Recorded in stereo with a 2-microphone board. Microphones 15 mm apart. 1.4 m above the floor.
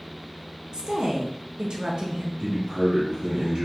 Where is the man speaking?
70° right (ahead or behind), 1.7 m.